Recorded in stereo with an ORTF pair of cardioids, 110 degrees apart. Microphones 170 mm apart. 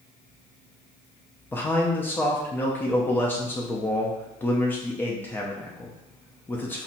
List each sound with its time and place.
1.5 s a man speaking: 10° left, 0.7 m